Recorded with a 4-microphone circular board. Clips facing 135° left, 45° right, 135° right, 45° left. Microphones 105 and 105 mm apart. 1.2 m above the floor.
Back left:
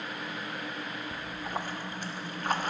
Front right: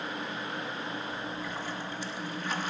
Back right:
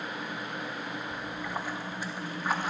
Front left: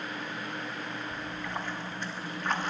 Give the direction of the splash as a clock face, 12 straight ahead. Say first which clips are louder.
Even, back right 1 dB; 7 o'clock.